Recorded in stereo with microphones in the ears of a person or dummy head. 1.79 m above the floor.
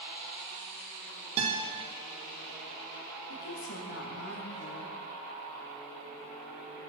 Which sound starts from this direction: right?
A guitar, at 1.4 s.